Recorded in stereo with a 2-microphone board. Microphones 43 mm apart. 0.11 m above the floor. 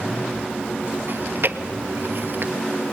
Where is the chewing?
50° right (ahead or behind), 1.0 m.